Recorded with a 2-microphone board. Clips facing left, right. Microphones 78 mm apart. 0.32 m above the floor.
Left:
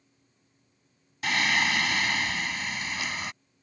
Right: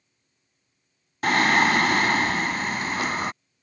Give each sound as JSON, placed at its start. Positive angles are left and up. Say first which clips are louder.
{"t": 1.2, "sound": "singing", "louder": "right 7 dB", "side_deg": -45}